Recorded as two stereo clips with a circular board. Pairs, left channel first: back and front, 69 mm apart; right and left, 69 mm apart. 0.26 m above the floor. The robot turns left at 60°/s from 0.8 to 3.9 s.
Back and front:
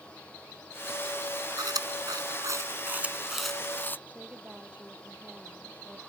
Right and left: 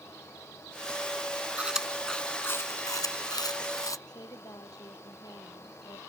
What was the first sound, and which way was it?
Chewing, 20° left.